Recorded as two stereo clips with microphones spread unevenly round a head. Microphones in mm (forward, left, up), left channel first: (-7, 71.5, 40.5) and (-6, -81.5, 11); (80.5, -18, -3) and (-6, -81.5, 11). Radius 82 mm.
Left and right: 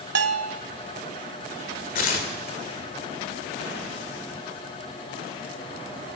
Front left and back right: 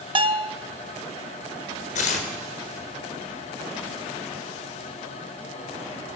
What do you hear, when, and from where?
0.1 s a bell: 105° right, 1.6 m
1.9 s tearing paper: 55° left, 4 m